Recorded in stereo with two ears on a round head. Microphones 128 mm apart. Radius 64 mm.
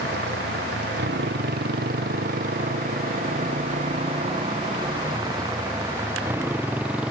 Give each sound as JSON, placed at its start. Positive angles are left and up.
{"t": 0.0, "sound": "a motorcycle", "side_deg": -90}